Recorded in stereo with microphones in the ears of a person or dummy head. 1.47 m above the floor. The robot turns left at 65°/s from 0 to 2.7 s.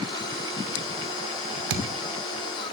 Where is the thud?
70° right (ahead or behind), 2.5 m; by 1.9 s 75° right (ahead or behind), 2.5 m.